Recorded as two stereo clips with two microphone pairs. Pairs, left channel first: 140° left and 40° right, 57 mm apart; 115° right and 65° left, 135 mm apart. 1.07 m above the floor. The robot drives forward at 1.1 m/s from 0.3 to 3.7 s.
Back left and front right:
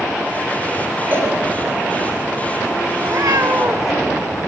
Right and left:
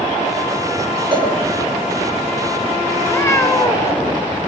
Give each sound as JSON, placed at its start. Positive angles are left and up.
{"t": 1.1, "sound": "a cowbell", "azimuth_deg": 15, "distance_m": 5.0}
{"t": 3.0, "sound": "a cat meowing", "azimuth_deg": -40, "distance_m": 3.0}